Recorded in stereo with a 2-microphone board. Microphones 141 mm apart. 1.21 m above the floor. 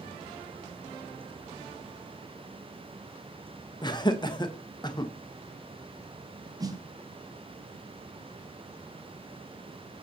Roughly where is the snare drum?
Right.